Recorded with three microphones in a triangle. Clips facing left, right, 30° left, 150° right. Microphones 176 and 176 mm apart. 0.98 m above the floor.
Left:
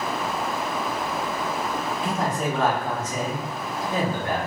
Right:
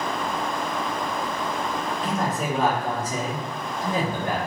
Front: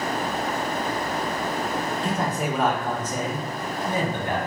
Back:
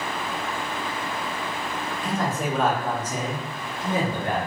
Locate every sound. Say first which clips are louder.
2.0 s a man speaking: left 1 dB, back 3 dB; 25° left, 0.7 m; by 4.4 s 100° right, 1.2 m